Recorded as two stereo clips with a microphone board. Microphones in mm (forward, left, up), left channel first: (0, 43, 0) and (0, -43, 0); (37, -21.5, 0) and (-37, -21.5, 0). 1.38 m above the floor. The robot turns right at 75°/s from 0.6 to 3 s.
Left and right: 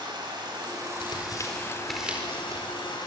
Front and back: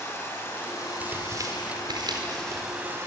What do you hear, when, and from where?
0.0 s running water: 60° right, 7 m; by 3.1 s 120° left, 7 m
1.0 s tearing paper: 110° left, 4.5 m; by 2.7 s 125° right, 4.5 m